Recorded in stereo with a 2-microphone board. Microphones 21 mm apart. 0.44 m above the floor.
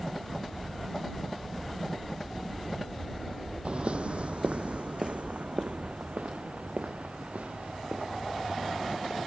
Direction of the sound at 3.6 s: 55° right (ahead or behind).